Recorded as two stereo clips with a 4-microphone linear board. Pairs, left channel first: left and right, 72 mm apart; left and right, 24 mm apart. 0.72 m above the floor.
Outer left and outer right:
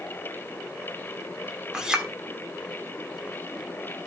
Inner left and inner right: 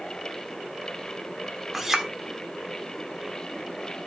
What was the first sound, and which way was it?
A clink, 10° right (ahead or behind).